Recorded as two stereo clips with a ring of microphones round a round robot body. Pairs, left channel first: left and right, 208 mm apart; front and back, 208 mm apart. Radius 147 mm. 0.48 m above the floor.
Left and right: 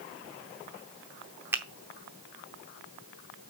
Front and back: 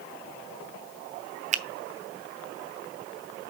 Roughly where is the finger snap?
Behind.